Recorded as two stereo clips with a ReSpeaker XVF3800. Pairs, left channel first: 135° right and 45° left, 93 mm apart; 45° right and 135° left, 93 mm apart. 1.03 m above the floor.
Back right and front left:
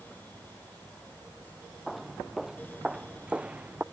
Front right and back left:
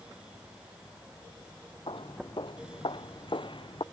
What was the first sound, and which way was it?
Footsteps, 45° right.